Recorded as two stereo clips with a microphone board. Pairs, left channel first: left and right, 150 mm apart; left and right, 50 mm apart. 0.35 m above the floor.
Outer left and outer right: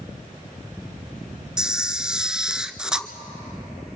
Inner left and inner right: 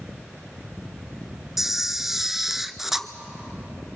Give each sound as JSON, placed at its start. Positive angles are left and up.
{"t": 1.6, "sound": "a camera shutter", "side_deg": -5, "distance_m": 0.6}